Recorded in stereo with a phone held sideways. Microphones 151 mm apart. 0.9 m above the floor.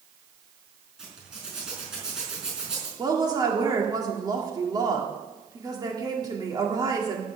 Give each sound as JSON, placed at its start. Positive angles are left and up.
{"t": 1.0, "sound": "a zipper", "side_deg": -5, "distance_m": 5.0}
{"t": 3.0, "sound": "a woman speaking", "side_deg": -25, "distance_m": 1.9}